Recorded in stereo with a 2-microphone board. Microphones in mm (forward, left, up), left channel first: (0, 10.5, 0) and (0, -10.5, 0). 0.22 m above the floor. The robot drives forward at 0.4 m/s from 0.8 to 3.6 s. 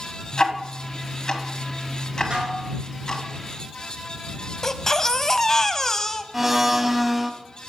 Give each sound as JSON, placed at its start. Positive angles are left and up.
{"t": 0.3, "sound": "ticking", "side_deg": 35, "distance_m": 1.4}
{"t": 2.3, "sound": "dishes clattering", "side_deg": -50, "distance_m": 2.5}
{"t": 4.6, "sound": "a baby crying", "side_deg": 25, "distance_m": 0.5}
{"t": 6.3, "sound": "a blender", "side_deg": -10, "distance_m": 0.7}